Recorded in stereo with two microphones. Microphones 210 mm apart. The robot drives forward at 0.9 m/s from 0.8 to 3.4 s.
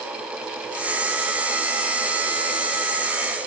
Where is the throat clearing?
No throat clearing in this recording.